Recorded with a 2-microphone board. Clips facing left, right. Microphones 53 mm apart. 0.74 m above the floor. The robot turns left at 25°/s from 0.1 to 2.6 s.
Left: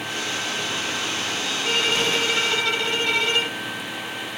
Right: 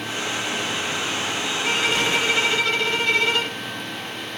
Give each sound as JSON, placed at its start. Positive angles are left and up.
{"t": 1.6, "sound": "a violin", "side_deg": 0, "distance_m": 2.0}